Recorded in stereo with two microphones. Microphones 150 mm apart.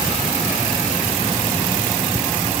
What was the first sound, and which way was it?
Only background noise.